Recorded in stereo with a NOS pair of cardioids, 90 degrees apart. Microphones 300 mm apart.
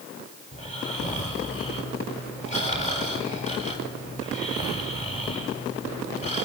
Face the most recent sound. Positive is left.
turn(degrees=25)